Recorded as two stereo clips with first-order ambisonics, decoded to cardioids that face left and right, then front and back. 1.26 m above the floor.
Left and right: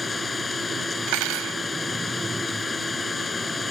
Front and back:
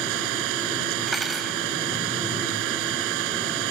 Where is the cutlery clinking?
100° right.